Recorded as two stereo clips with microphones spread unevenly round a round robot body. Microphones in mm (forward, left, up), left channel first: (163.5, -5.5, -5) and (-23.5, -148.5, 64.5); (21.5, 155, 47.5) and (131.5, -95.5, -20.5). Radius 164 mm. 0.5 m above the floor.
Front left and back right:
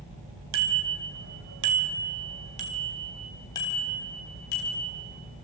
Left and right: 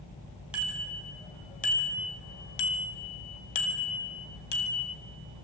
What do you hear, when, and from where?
0.5 s a bicycle bell: 150° right, 2.5 m; by 5.0 s 90° left, 3.5 m